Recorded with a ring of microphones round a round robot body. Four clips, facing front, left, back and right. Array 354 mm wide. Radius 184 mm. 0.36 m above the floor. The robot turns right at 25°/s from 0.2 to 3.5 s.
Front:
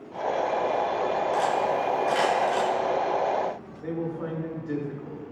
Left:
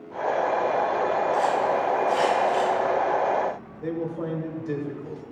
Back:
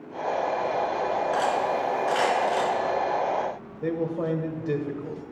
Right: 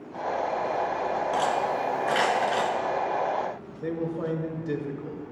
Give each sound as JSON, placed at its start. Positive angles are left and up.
{"t": 1.3, "sound": "cutlery clinking", "azimuth_deg": -115, "distance_m": 3.0}
{"t": 3.8, "sound": "a man speaking", "azimuth_deg": -175, "distance_m": 2.5}